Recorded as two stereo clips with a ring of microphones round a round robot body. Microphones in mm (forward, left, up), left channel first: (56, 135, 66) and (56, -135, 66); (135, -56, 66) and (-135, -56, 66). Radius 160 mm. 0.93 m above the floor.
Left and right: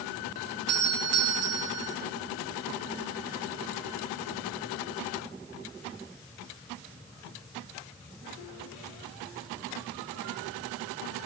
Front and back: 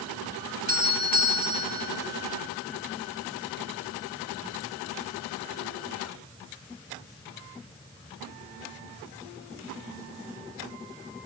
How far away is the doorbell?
About 2.5 m.